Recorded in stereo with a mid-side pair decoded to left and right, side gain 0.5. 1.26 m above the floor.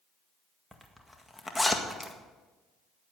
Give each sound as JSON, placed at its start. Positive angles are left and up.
{"t": 0.7, "sound": "a zipper", "azimuth_deg": 5, "distance_m": 1.8}